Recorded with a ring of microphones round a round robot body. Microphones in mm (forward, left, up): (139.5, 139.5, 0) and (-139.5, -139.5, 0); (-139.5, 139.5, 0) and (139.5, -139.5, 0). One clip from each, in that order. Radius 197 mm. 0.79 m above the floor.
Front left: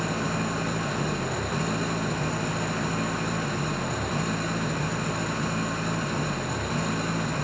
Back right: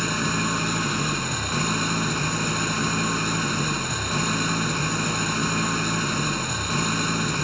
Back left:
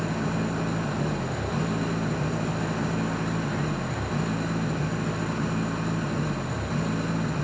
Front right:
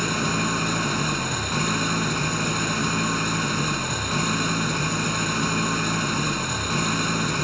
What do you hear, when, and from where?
0.0 s an engine running: 70° right